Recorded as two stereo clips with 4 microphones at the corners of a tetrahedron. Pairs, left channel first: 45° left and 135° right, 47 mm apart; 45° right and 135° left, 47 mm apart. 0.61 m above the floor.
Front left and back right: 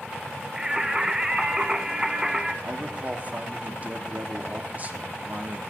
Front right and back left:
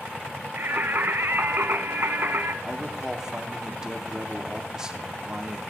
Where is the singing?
150° left, 0.7 m.